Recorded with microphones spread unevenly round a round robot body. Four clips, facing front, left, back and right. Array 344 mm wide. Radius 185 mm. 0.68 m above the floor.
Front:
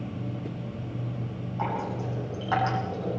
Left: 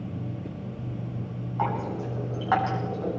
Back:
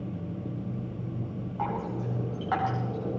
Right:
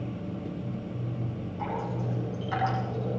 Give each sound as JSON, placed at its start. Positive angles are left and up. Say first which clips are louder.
{"t": 1.6, "sound": "dripping", "louder": "left 5 dB, front 2 dB", "azimuth_deg": 80, "distance_m": 9.0}